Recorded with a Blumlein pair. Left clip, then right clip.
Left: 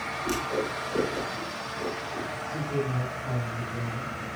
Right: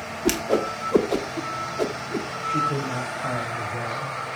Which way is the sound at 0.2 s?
35° right.